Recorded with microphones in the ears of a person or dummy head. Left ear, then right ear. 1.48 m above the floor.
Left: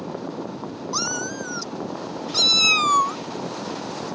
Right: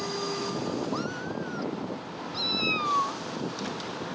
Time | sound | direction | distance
0.9 | a cat meowing | 80° left | ?